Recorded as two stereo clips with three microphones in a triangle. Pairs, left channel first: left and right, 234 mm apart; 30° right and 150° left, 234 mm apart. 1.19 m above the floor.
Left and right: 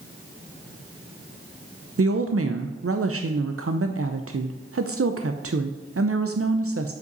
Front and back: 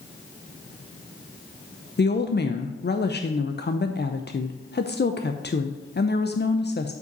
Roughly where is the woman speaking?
Right.